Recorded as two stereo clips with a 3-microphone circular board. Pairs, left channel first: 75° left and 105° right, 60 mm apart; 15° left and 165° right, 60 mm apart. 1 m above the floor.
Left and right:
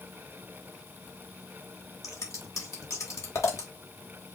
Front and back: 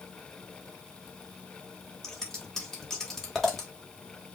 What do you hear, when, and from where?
2.0 s scissors: 95° left, 1.8 m